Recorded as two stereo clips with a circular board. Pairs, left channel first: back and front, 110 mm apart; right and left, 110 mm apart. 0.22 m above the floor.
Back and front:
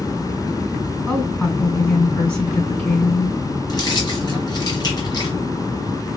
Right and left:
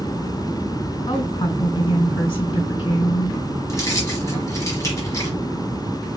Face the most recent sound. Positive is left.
turn(degrees=-140)